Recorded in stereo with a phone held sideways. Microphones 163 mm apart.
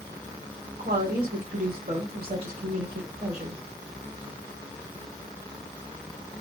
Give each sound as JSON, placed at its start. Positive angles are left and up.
{"t": 0.8, "sound": "a woman speaking", "side_deg": -75, "distance_m": 1.6}